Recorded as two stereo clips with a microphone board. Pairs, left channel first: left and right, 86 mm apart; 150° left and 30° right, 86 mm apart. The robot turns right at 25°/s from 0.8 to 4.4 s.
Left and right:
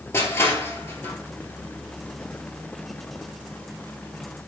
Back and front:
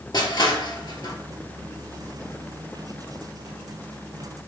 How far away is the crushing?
About 0.7 m.